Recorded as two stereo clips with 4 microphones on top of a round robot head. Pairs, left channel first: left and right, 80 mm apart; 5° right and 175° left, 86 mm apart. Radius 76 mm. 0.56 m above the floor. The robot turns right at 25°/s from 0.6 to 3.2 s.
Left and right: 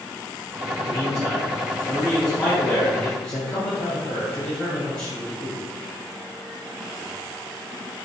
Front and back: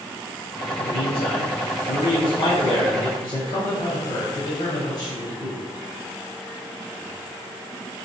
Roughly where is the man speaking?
Ahead right.